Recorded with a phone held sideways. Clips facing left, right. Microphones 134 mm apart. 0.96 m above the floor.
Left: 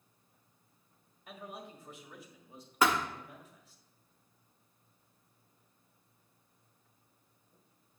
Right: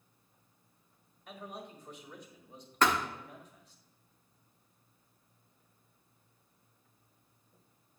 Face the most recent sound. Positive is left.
turn(degrees=10)  # may be behind; listen again after turning